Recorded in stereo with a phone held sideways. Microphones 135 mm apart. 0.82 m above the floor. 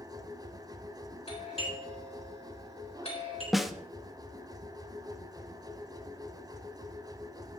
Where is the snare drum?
Centre (ahead or behind), 0.8 m.